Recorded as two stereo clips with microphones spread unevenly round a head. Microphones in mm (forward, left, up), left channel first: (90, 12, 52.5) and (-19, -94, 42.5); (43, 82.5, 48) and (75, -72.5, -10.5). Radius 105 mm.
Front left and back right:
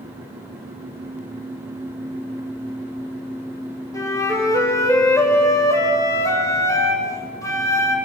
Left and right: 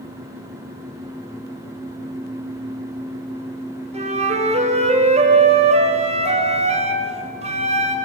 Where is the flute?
25° right, 4 m.